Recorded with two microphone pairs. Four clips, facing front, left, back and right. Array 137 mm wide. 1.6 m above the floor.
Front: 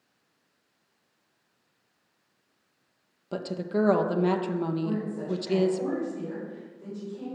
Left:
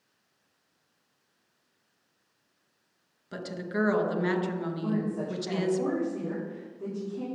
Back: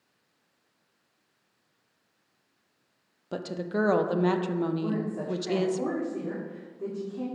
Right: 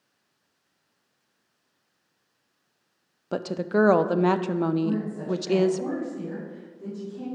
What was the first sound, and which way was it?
A woman speaking, 95° right.